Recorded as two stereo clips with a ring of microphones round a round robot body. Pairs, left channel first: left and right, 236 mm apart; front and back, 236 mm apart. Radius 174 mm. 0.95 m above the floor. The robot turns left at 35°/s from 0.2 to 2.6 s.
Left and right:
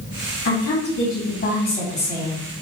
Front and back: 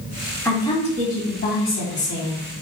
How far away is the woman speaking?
About 2 m.